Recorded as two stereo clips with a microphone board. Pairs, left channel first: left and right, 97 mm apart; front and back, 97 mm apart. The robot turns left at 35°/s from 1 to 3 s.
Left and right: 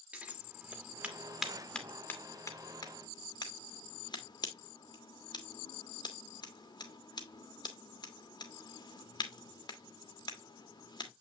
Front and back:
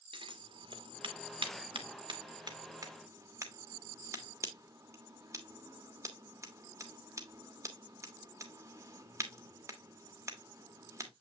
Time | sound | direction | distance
0.1 | scissors | 165° right | 1.4 m